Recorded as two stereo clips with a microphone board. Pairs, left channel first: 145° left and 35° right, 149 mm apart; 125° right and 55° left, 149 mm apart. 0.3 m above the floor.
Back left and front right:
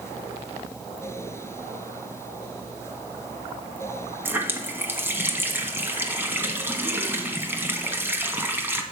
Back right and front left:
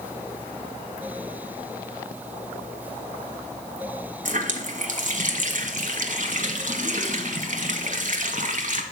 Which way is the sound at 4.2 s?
40° left.